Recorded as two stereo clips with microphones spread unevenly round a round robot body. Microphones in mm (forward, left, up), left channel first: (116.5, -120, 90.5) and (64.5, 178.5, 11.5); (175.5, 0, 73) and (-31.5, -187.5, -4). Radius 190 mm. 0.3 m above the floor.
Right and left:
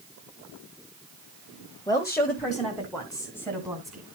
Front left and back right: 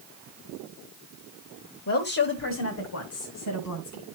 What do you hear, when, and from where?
1.9 s a woman speaking: 5° left, 1.4 m; by 4.0 s 25° left, 3 m